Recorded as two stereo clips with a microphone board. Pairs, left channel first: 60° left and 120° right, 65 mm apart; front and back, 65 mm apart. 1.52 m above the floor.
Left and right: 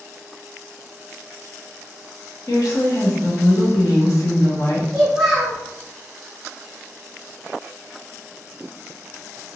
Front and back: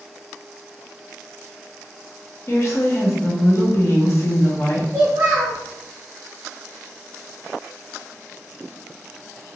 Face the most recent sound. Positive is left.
turn(degrees=160)